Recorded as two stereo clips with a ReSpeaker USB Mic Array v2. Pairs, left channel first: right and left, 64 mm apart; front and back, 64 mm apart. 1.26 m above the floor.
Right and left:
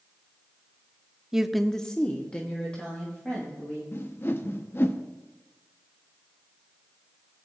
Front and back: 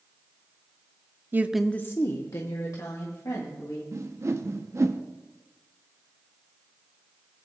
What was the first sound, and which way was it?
A woman speaking, 165° left.